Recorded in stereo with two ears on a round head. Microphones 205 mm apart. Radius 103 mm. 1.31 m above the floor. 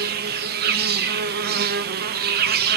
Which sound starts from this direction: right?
An insect, at 0.0 s.